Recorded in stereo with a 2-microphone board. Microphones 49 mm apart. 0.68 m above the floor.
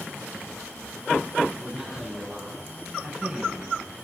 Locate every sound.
1.6 s a man speaking: 5° right (ahead or behind), 7 m; by 3.8 s 20° right (ahead or behind), 4 m